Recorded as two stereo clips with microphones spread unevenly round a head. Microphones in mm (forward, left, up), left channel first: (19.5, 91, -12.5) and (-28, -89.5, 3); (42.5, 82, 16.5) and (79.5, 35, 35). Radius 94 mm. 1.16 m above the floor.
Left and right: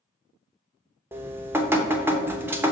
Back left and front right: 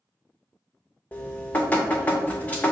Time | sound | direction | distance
1.1 | dripping | 150° right | 0.8 m